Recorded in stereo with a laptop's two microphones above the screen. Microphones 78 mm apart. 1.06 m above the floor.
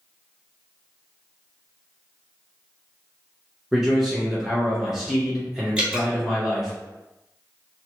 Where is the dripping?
15° right (ahead or behind), 0.7 m.